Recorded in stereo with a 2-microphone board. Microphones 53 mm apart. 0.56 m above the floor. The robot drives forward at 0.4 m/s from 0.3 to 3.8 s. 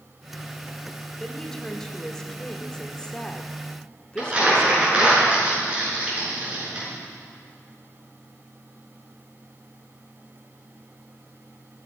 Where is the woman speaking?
10° left (ahead or behind), 2.0 m; by 5.2 s 15° left (ahead or behind), 1.1 m.